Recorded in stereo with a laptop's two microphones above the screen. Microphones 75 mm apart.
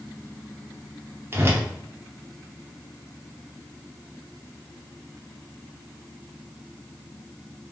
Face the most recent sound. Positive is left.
turn(degrees=-35)  # may be behind; listen again after turning